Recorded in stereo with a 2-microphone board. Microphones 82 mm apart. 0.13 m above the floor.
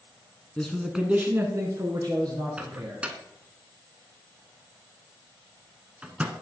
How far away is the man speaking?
About 1.3 m.